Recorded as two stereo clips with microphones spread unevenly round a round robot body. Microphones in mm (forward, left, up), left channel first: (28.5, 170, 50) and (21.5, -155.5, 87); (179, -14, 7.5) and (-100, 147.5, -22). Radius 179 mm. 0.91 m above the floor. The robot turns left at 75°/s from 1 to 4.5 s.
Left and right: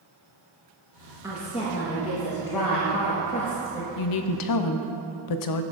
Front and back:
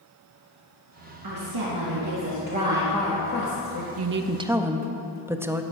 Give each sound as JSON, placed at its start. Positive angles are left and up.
{"t": 1.2, "sound": "a woman speaking", "azimuth_deg": -175, "distance_m": 1.4}
{"t": 4.0, "sound": "a woman speaking", "azimuth_deg": 110, "distance_m": 0.7}